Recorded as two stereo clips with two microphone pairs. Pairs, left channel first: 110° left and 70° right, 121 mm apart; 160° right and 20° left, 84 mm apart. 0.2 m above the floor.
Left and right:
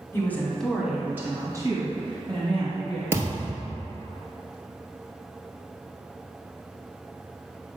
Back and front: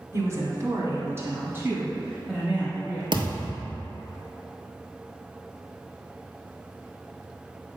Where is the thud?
Straight ahead, 1.2 m.